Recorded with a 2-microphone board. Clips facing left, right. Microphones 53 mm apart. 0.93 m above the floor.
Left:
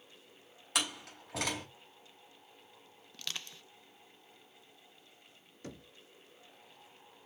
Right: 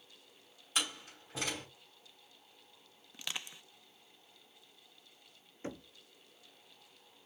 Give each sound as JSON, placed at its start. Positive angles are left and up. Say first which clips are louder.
{"t": 0.8, "sound": "a door slam", "louder": "left 1 dB", "side_deg": 75, "distance_m": 5.0}
{"t": 3.1, "sound": "crushing", "louder": "right 1 dB", "side_deg": -15, "distance_m": 0.5}
{"t": 5.6, "sound": "knocking", "louder": "right 4 dB", "side_deg": -25, "distance_m": 0.6}